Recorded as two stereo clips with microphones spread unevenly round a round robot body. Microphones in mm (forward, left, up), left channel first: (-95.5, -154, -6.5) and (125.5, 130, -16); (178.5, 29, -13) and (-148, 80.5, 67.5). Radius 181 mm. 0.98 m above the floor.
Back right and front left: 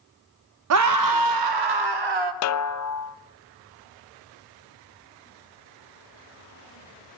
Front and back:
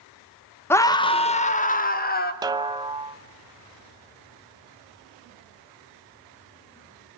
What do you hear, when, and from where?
0.7 s a scream: 55° left, 0.9 m; by 2.3 s 45° left, 1.9 m
2.4 s a snare drum: 100° right, 0.7 m